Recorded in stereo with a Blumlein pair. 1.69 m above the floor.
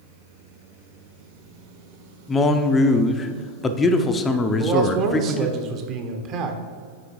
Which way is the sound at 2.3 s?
20° left.